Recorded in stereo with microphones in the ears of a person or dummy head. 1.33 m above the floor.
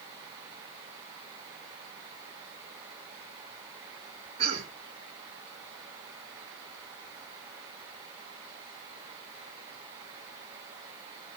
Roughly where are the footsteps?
I don't hear footsteps.